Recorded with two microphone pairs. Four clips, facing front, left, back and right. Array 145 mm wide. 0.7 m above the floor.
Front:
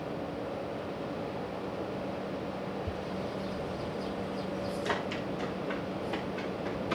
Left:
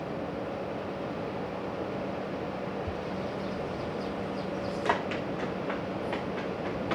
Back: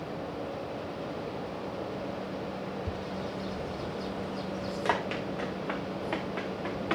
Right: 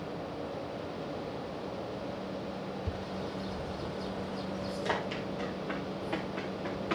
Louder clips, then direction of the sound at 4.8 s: Left 5 dB, back 3 dB; 145° left.